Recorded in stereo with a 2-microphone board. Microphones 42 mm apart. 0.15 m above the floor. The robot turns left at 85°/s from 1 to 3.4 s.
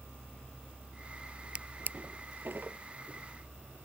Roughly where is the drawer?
Right.